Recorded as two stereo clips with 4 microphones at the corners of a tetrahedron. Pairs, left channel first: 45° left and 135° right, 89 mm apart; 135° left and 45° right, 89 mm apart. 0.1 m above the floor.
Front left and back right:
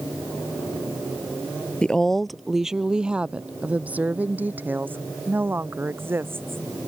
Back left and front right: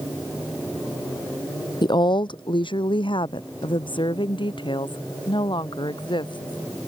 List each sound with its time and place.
1.8 s a woman speaking: 125° left; by 6.6 s 160° left